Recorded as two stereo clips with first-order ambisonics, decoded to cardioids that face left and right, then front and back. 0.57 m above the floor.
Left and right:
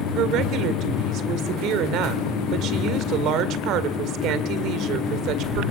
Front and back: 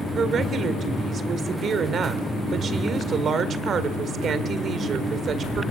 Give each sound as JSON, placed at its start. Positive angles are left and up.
{"t": 0.1, "sound": "a woman speaking", "azimuth_deg": -120, "distance_m": 1.8}